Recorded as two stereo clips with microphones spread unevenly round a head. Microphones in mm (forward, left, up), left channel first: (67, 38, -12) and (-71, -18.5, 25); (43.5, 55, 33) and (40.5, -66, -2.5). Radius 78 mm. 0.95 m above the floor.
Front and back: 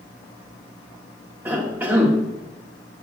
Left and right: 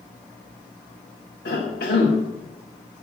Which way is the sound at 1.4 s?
120° left.